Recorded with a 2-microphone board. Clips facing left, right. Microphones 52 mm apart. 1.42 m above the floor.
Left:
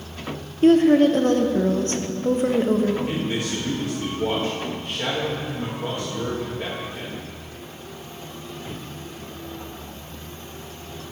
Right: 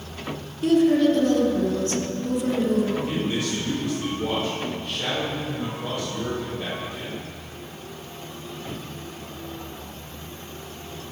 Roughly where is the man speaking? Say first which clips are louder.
Even; centre.